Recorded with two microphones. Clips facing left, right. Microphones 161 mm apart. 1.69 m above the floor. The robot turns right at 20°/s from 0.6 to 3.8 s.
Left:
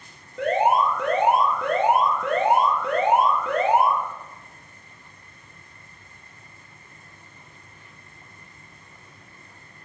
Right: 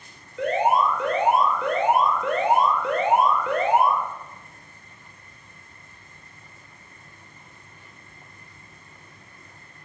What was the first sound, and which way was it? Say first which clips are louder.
An alarm: left 1 dB; 75° left.